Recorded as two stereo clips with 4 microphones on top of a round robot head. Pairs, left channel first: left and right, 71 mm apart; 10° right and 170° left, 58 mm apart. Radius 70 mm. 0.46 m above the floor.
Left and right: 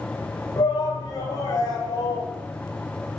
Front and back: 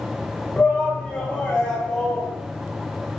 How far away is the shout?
About 2 m.